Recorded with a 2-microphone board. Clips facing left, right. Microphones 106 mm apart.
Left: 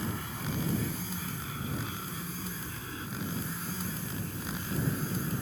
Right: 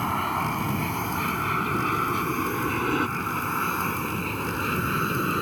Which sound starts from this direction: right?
An aircraft, at 0.0 s.